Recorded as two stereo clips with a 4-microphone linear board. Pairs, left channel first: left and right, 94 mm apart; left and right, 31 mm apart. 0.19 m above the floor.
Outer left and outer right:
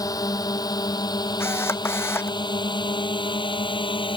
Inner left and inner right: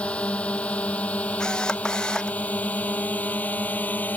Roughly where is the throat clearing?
I don't hear throat clearing.